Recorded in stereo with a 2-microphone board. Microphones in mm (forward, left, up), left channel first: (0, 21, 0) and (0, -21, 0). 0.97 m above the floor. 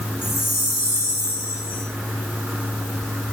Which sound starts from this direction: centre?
A chime, at 0.2 s.